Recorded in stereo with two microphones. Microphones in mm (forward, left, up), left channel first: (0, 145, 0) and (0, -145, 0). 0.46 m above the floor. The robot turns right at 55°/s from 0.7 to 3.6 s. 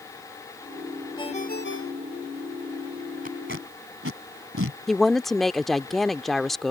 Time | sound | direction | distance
1.2 | a ringtone | 15° left | ?
3.2 | tape being pulled | 30° right (ahead or behind) | ?
4.9 | a woman speaking | centre (ahead or behind) | ?